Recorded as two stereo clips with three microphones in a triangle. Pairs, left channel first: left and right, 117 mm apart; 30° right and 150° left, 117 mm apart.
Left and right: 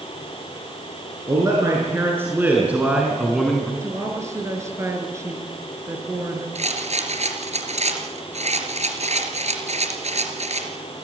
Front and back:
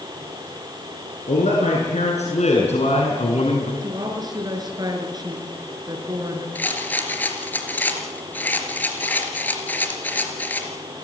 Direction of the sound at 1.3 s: 30° right.